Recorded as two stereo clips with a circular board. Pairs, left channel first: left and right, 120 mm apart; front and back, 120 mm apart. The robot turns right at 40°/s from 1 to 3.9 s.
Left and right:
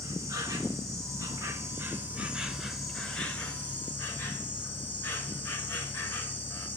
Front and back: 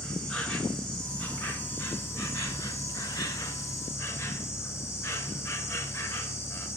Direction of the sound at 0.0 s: 75° right.